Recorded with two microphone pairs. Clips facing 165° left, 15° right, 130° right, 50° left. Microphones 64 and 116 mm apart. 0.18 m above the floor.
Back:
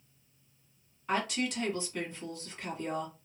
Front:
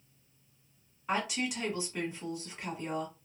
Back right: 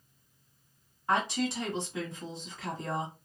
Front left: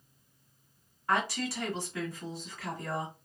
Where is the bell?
I don't hear a bell.